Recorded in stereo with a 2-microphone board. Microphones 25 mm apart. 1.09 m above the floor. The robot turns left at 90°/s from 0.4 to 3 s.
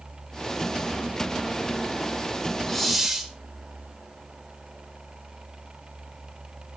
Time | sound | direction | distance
2.7 | a hiss | 15° left (ahead or behind) | 1.7 m